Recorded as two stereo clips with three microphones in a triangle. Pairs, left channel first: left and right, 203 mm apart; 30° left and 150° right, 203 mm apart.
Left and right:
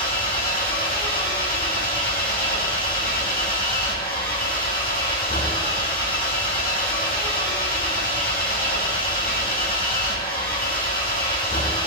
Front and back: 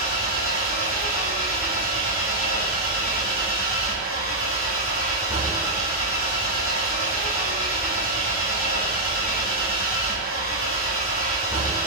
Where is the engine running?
25° left, 4 m.